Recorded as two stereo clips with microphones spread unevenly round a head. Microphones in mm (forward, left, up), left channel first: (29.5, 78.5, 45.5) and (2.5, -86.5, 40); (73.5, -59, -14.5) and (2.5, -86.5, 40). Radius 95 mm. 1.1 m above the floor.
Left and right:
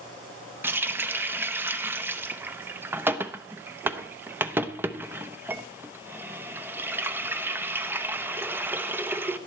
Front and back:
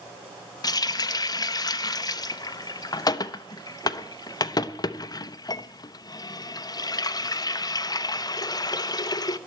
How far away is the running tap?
About 0.7 m.